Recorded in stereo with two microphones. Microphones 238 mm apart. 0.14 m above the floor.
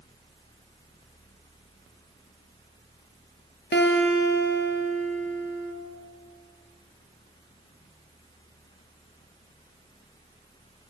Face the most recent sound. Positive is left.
turn(degrees=50)  # may be behind; listen again after turning